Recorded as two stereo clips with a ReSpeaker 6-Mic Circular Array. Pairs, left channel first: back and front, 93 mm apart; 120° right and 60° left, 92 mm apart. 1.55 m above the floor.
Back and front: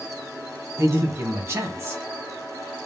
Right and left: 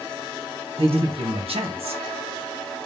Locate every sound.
0.8 s a man speaking: 60° left, 1.7 m